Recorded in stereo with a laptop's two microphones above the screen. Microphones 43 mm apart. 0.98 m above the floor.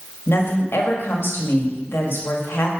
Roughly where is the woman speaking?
Left.